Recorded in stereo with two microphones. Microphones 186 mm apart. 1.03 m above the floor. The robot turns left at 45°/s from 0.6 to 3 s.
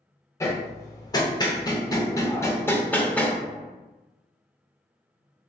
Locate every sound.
0.4 s hammering: 15° left (ahead or behind), 0.7 m; by 3.4 s 10° left (ahead or behind), 0.7 m